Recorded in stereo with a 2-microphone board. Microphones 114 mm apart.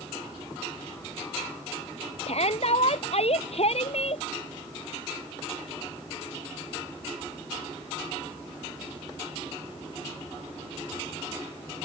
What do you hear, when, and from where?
2.3 s a shout: 60° left (ahead or behind)